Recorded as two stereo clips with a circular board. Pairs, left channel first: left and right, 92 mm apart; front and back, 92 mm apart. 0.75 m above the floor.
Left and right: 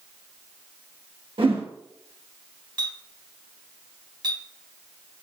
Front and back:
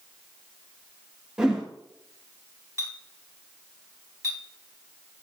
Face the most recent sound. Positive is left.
turn(degrees=-125)